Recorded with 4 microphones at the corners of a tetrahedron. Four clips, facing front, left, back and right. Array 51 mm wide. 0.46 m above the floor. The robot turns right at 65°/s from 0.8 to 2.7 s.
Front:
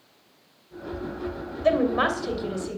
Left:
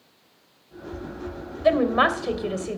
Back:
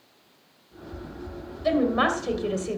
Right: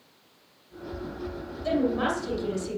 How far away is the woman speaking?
About 2 m.